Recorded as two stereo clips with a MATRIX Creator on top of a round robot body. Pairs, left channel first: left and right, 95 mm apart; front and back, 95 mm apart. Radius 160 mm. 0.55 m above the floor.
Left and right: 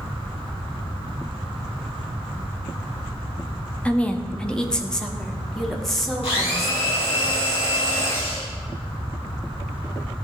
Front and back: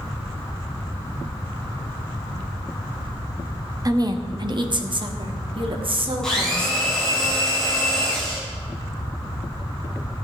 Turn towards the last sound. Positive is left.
turn(degrees=85)